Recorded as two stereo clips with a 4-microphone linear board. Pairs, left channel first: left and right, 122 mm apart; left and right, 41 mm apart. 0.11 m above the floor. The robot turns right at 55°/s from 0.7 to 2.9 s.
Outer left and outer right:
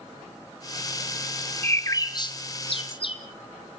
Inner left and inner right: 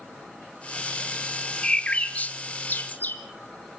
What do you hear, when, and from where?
1.6 s a bird: 20° left (ahead or behind), 1.2 m; by 3.2 s 45° left (ahead or behind), 1.2 m